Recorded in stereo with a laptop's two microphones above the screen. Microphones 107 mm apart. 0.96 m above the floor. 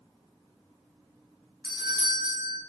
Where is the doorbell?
40° right (ahead or behind), 0.7 m.